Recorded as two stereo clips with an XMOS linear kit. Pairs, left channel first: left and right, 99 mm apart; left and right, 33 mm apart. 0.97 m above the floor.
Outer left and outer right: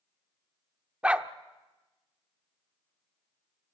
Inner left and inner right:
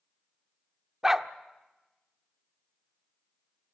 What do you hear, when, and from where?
1.0 s a dog barking: 10° right (ahead or behind), 0.7 m